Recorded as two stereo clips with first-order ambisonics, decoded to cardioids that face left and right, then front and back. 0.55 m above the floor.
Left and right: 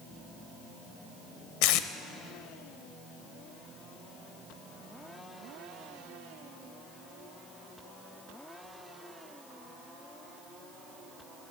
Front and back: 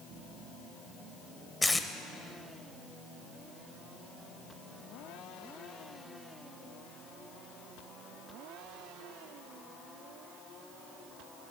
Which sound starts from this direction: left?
Tape being pulled, at 1.6 s.